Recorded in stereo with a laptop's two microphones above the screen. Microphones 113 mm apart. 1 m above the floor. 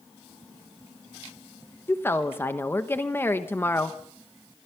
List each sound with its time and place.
1.9 s a woman speaking: 20° left (ahead or behind), 1.0 m